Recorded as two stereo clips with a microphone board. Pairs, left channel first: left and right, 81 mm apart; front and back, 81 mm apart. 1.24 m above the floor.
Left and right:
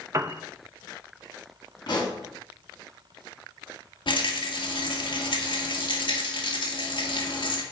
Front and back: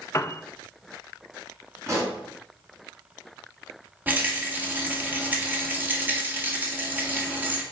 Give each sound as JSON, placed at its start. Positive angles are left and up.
{"t": 0.1, "sound": "a piano", "azimuth_deg": -45, "distance_m": 0.6}
{"t": 1.9, "sound": "a pop", "azimuth_deg": 125, "distance_m": 3.5}
{"t": 4.1, "sound": "a rattle", "azimuth_deg": 110, "distance_m": 1.9}